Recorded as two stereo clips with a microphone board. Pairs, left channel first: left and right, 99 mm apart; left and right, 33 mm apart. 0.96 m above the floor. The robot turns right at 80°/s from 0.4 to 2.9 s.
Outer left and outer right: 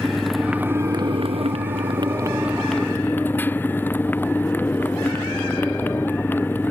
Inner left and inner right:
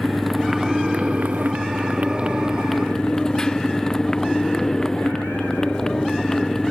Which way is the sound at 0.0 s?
Straight behind.